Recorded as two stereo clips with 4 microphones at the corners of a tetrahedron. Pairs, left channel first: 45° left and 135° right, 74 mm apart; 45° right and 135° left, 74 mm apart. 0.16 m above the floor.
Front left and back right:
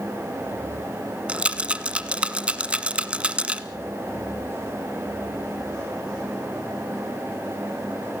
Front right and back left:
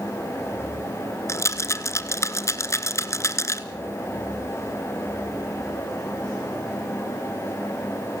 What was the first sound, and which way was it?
A rattle, 70° right.